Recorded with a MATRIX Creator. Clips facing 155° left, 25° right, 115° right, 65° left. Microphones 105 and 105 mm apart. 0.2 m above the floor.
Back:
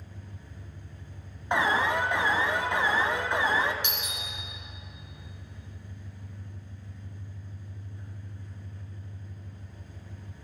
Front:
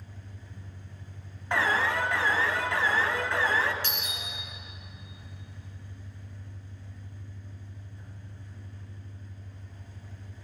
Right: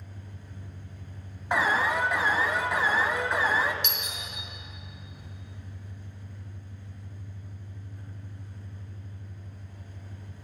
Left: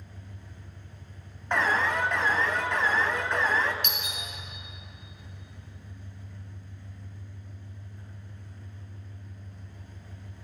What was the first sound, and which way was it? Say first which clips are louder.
An engine running: back 1 dB, right 1 dB; 160° right.